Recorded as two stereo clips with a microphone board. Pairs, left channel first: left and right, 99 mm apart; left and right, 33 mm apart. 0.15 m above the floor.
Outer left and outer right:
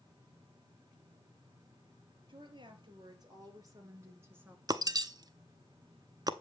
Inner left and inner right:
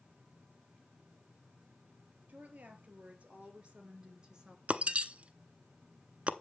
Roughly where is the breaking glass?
Right.